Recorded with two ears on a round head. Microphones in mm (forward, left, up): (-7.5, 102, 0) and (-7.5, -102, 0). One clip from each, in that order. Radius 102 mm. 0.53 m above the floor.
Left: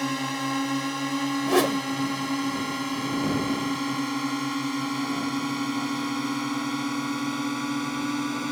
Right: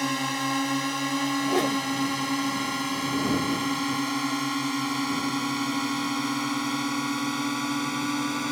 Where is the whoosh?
30° left (ahead or behind).